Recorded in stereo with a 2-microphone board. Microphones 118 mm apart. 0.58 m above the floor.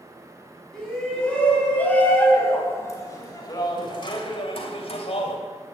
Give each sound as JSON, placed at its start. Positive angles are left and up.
{"t": 0.7, "sound": "a shout", "side_deg": 5, "distance_m": 5.5}